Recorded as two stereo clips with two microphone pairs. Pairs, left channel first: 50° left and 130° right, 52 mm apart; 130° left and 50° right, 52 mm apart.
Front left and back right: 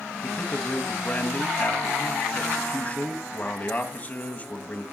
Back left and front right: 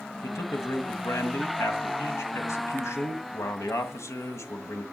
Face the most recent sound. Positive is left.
turn(degrees=110)